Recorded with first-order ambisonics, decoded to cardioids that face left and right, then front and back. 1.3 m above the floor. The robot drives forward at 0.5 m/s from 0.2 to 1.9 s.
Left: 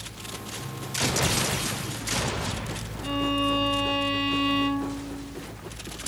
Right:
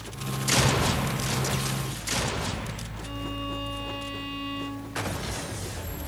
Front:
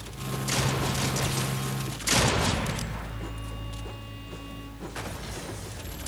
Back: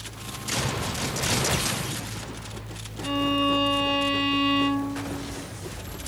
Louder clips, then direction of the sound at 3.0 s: Left 10 dB, back 17 dB; 150° left.